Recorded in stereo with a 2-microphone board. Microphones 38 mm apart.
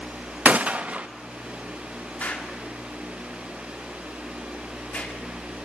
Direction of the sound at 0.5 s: 45° right (ahead or behind).